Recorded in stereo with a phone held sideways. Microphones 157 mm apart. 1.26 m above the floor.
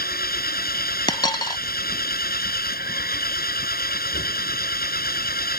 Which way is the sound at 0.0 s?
75° left (ahead or behind).